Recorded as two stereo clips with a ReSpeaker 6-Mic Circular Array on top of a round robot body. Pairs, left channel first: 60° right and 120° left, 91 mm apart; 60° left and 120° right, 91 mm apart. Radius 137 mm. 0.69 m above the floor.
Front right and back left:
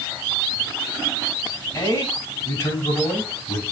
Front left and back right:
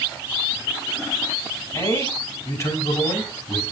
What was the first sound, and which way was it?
A man speaking, straight ahead.